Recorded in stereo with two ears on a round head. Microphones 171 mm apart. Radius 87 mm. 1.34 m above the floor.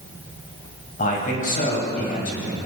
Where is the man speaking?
45° left (ahead or behind), 8 m.